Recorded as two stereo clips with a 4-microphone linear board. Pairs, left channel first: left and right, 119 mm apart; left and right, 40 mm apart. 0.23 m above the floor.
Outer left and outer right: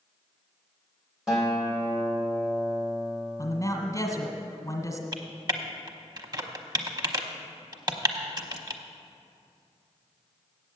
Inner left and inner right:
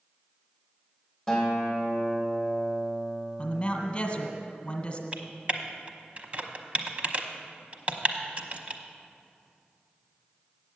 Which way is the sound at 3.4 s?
30° left (ahead or behind).